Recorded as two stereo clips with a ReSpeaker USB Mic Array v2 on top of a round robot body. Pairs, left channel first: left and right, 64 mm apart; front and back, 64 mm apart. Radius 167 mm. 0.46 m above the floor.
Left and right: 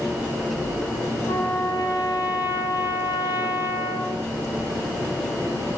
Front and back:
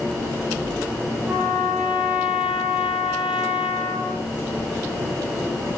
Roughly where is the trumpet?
Left.